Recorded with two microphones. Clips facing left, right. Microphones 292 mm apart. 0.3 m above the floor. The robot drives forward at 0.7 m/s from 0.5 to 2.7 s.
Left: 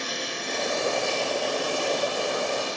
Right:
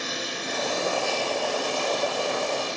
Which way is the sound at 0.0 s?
5° right (ahead or behind).